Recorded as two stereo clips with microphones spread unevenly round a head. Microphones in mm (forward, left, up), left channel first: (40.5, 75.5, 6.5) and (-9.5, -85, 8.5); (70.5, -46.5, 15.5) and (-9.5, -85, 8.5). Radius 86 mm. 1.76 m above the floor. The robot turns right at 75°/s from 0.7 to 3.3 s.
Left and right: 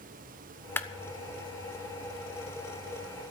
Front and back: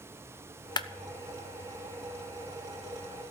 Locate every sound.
0.8 s a clap: 5° right, 1.0 m; by 0.9 s straight ahead, 1.0 m